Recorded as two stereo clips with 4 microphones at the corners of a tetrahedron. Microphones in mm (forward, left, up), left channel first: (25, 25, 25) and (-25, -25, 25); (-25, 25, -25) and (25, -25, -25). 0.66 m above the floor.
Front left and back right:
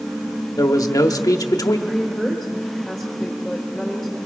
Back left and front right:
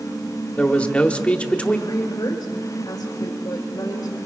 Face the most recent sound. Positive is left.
turn(degrees=135)